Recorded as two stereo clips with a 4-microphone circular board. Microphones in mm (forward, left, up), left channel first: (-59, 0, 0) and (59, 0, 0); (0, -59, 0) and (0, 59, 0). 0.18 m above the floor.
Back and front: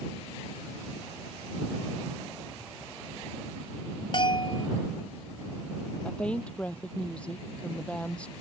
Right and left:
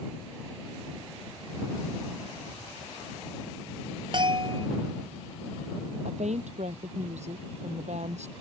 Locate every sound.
4.1 s a bell: 135° left
6.0 s a woman speaking: 100° left